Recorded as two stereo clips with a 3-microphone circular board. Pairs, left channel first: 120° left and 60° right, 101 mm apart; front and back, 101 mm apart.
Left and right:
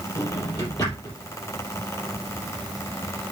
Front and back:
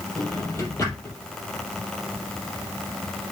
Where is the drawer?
65° left, 4 m.